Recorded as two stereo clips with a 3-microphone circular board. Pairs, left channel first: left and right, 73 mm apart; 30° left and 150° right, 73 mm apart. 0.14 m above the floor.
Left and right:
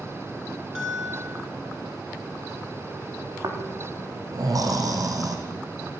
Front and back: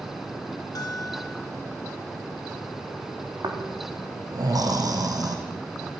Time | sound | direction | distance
0.8 | a bell | 10° right | 5 m
3.4 | snoring | 125° right | 4.5 m